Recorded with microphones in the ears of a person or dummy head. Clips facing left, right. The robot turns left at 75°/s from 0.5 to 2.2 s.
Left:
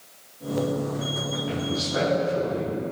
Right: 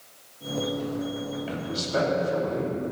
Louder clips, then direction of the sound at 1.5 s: Left 4 dB; 35° right.